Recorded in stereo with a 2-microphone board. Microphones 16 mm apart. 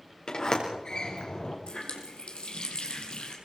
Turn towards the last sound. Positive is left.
turn(degrees=75)  # may be behind; listen again after turning